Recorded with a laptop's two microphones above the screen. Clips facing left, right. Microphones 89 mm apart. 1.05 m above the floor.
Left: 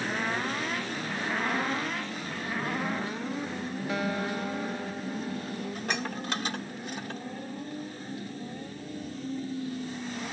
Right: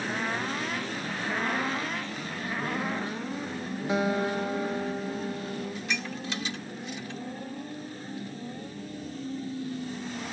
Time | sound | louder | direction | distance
3.9 | a guitar | right 5 dB | 20° right (ahead or behind) | ?
5.8 | dishes clattering | left 1 dB | 50° left (ahead or behind) | ?